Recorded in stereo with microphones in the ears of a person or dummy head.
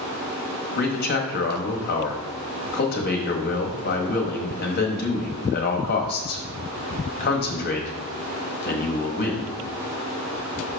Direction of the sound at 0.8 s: 45° left (ahead or behind).